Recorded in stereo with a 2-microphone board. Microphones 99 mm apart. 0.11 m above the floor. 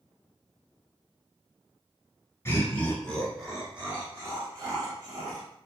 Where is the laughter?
25° left (ahead or behind), 1.4 m; by 5.5 s 45° right (ahead or behind), 1.8 m.